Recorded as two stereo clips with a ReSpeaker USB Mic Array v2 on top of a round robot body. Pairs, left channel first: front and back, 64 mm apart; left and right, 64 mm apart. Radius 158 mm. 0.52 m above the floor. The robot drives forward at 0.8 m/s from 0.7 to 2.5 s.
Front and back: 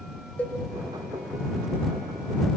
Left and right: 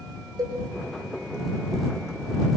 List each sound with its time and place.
0.4 s a cowbell: 65° right, 7.5 m